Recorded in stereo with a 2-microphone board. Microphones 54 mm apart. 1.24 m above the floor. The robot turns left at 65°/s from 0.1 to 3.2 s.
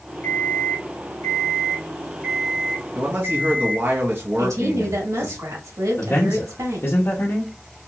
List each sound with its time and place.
0.2 s an alarm clock: 150° left, 2.5 m; by 3.9 s 45° right, 2.5 m
3.0 s a man speaking: 25° right (ahead or behind), 1.0 m; by 5.4 s 40° right (ahead or behind), 1.0 m
4.4 s a woman speaking: 75° right (ahead or behind), 1.8 m
6.0 s a man speaking: 50° left (ahead or behind), 0.7 m